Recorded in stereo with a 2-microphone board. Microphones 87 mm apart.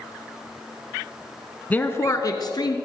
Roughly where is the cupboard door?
I don't hear a cupboard door.